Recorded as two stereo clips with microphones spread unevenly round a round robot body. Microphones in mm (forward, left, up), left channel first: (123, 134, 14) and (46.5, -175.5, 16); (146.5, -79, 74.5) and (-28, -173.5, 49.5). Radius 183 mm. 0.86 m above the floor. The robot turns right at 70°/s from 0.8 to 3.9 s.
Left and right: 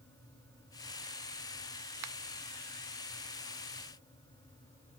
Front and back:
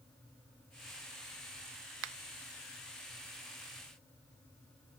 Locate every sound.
2.0 s a finger snap: 150° right; by 2.1 s 145° right